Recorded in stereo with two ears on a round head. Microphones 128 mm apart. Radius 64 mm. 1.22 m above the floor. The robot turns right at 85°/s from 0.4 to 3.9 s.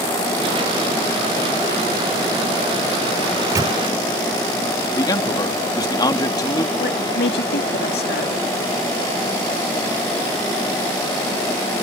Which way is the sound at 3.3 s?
5° right (ahead or behind).